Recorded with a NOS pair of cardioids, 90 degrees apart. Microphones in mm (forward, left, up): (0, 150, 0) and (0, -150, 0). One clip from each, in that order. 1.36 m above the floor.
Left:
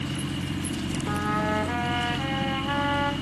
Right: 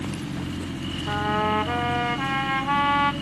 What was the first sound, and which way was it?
A trumpet, 35° right.